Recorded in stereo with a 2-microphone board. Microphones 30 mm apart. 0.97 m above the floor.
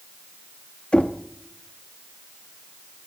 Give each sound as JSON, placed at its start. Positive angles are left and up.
{"t": 0.9, "sound": "knocking", "side_deg": 30, "distance_m": 0.8}